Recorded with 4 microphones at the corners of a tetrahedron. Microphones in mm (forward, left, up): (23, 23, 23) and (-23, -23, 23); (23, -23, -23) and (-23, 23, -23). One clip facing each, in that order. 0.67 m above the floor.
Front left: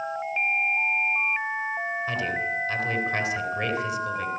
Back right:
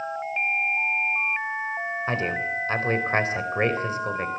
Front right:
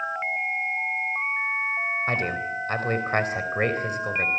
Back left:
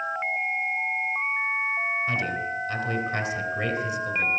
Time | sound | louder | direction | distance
2.1 | a man speaking | back right 1 dB, front right 1 dB | 85° right | 3.5 m